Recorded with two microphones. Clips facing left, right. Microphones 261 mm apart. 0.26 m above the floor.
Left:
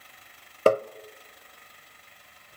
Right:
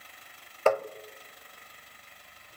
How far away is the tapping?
About 0.6 m.